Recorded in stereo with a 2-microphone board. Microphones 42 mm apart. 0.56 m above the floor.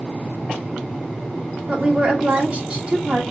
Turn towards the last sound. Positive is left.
turn(degrees=-25)  # may be behind; listen again after turning